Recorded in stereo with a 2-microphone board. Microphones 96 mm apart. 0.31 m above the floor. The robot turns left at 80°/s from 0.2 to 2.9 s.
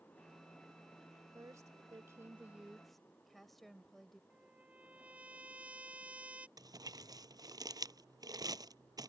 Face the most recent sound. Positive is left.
turn(degrees=-40)  # may be behind; listen again after turning